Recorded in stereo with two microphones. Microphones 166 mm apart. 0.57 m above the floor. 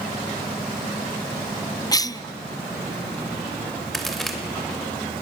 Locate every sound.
1.9 s a cough: 20° left (ahead or behind), 0.6 m
3.9 s a crack: centre (ahead or behind), 3 m